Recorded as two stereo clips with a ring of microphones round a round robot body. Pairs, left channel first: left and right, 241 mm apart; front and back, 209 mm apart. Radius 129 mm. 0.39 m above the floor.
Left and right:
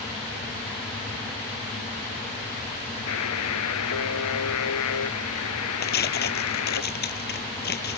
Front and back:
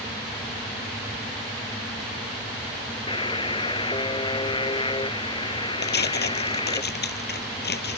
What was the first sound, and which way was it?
A buzzer, 65° left.